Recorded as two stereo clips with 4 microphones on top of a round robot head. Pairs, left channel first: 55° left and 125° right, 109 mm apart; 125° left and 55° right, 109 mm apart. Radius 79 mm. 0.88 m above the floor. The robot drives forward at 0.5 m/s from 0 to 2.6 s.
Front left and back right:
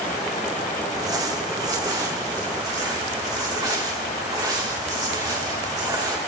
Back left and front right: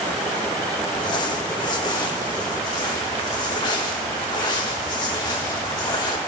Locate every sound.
0.9 s crumpling: 175° left, 1.2 m; by 6.2 s straight behind, 2 m